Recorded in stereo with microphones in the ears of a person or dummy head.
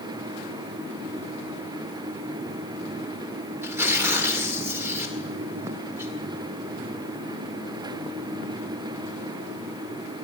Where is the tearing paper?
15° right (ahead or behind), 2.0 m.